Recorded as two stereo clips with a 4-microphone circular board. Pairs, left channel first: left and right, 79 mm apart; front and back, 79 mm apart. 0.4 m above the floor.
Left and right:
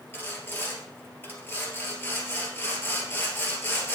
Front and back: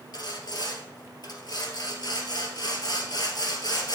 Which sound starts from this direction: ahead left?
Sawing, at 0.1 s.